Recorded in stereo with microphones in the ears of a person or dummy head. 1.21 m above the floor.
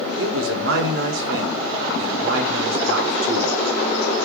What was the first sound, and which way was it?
A man speaking, 65° right (ahead or behind).